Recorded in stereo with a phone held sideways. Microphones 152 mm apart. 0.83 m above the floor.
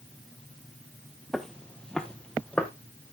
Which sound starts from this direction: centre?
Footsteps, at 1.3 s.